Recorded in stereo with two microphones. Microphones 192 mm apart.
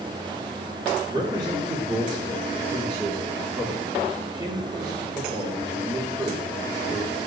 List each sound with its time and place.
1.1 s a man speaking: 20° right (ahead or behind), 3.5 m